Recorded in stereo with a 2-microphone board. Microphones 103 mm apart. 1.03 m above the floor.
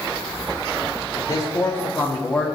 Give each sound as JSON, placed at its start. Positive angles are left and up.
{"t": 1.1, "sound": "a man speaking", "side_deg": 35, "distance_m": 1.9}